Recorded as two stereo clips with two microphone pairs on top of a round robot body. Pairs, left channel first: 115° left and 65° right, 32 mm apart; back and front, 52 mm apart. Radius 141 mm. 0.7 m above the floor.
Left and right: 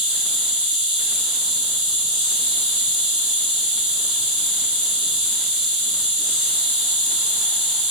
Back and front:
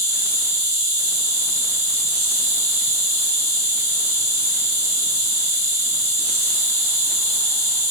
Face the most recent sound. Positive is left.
turn(degrees=10)